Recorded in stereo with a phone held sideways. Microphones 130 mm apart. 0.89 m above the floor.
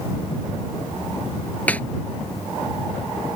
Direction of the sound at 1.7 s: 10° left (ahead or behind).